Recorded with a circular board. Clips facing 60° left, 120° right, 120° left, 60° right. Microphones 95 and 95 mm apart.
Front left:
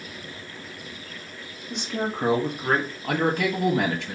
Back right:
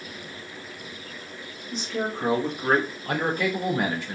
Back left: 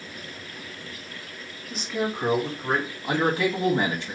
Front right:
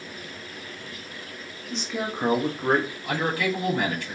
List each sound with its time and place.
1.7 s a man speaking: 40° left, 1.3 m; by 2.9 s 55° right, 1.3 m
3.0 s a man speaking: 55° left, 1.2 m